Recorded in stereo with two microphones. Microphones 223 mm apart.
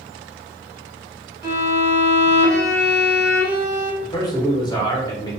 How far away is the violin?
About 0.8 m.